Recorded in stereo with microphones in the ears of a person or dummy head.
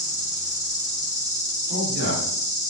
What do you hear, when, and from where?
0.0 s an insect: 35° left (ahead or behind), 1.8 m
1.7 s a man speaking: 65° left (ahead or behind), 1.4 m